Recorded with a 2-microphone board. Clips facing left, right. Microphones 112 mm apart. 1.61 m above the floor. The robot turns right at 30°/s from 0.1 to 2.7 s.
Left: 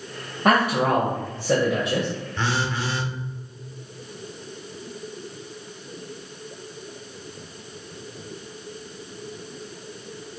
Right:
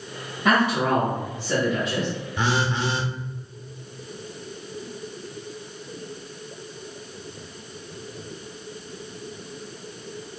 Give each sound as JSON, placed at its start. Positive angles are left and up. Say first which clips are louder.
{"t": 0.5, "sound": "a man speaking", "louder": "left 1 dB", "azimuth_deg": 55, "distance_m": 0.9}
{"t": 2.4, "sound": "a phone buzzing", "louder": "right 3 dB", "side_deg": -10, "distance_m": 0.7}